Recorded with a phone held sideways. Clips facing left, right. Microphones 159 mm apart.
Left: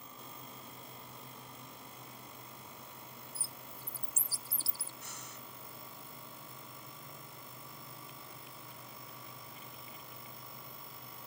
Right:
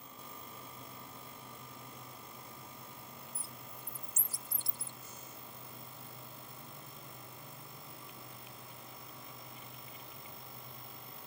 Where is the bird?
35° left (ahead or behind).